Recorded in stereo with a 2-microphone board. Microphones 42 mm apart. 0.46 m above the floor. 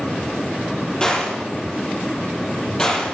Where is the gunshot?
25° left (ahead or behind), 7 m.